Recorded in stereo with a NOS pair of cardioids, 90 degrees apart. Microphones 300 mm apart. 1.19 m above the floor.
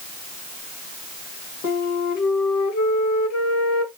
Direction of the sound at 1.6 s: 70° left.